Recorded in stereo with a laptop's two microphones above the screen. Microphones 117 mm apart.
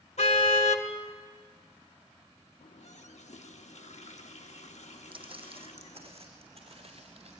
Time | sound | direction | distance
0.2 | a car horn | 80° left | 2 m
2.6 | a running tap | 75° left (ahead or behind) | 1.4 m
5.1 | footsteps | 50° right (ahead or behind) | 2.5 m